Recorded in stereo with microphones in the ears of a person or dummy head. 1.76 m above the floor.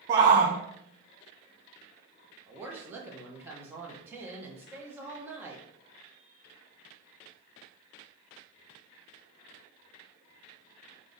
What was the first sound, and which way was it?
A shout, 15° right (ahead or behind).